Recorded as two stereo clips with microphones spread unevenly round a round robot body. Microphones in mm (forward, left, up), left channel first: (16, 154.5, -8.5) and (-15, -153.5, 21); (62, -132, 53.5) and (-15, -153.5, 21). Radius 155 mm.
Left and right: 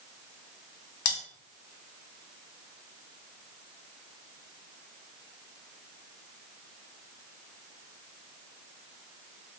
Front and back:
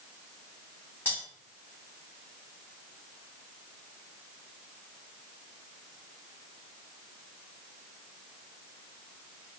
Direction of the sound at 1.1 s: 100° left.